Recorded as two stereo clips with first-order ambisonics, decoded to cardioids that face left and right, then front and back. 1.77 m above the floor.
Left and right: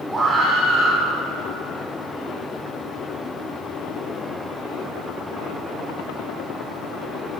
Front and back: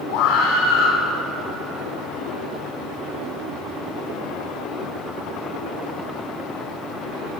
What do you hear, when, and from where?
0.1 s a scream: 5° right, 7 m